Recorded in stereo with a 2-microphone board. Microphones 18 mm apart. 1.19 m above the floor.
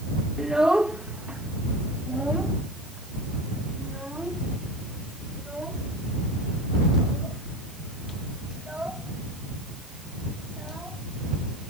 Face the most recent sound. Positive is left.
turn(degrees=-70)  # may be behind; listen again after turning